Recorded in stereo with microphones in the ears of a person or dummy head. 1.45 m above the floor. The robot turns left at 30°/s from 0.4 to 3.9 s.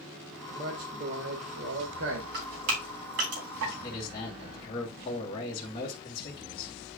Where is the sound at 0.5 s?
25° right, 1.9 m; by 2.2 s 80° right, 1.9 m.